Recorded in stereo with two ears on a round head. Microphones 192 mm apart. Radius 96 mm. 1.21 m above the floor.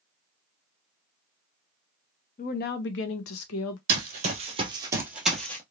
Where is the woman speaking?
35° left (ahead or behind), 0.7 m; by 3.8 s 80° left, 0.9 m.